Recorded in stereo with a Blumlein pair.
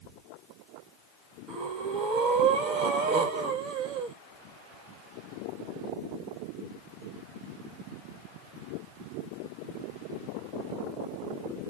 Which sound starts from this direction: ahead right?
Breathing, at 1.5 s.